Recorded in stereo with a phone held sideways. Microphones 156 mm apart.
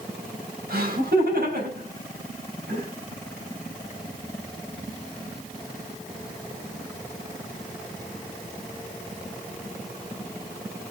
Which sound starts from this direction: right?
Laughter, at 0.7 s.